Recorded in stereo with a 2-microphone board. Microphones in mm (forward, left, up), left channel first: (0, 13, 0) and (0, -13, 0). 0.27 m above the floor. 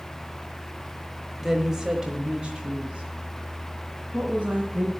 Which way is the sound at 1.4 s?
10° right (ahead or behind).